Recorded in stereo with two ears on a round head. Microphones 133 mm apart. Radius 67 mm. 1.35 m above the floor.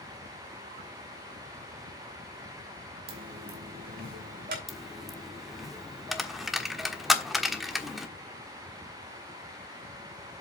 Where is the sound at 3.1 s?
65° right (ahead or behind), 3 m.